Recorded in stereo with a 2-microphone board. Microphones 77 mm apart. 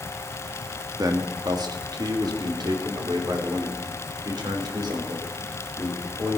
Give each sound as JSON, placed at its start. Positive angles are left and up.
{"t": 1.0, "sound": "a man speaking", "side_deg": -50, "distance_m": 1.8}